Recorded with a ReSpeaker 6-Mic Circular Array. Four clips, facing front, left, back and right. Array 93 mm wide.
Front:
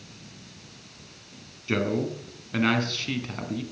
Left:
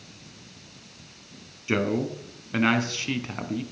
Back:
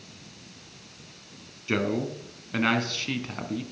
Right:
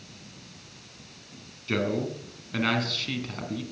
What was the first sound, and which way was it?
A man speaking, 100° left.